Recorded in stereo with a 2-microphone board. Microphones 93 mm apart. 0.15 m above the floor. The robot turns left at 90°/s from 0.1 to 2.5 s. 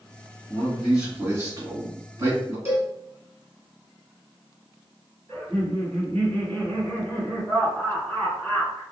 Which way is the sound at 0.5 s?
30° left.